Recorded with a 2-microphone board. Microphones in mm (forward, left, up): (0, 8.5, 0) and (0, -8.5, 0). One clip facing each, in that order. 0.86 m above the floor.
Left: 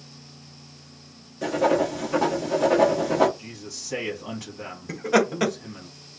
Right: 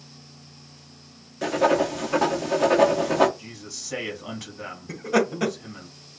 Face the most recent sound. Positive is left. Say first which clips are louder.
# left 2 dB
turn(degrees=40)  # may be behind; listen again after turning